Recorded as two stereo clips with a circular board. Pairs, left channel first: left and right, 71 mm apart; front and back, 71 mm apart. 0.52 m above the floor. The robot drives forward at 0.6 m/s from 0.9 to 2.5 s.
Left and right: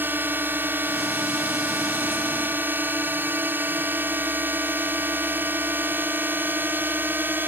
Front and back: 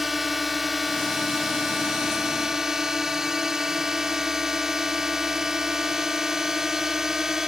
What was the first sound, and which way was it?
A drone, 95° right.